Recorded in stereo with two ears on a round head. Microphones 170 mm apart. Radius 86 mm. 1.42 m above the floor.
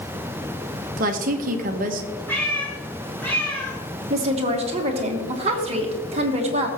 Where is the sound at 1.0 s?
45° right (ahead or behind), 0.9 m.